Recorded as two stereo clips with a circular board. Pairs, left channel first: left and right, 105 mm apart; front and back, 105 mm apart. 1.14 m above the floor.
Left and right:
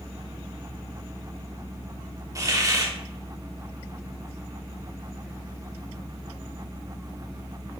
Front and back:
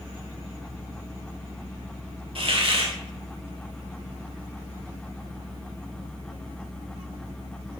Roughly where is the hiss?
Behind right.